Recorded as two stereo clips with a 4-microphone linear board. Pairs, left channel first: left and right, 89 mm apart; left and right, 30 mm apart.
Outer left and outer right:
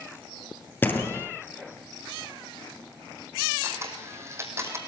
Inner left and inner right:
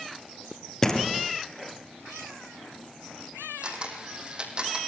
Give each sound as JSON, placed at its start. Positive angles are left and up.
{"t": 0.8, "sound": "a door slam", "side_deg": 20, "distance_m": 3.0}
{"t": 3.6, "sound": "a camera shutter", "side_deg": -30, "distance_m": 3.5}